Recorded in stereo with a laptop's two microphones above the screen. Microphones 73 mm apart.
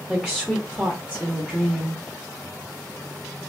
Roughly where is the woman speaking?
Centre.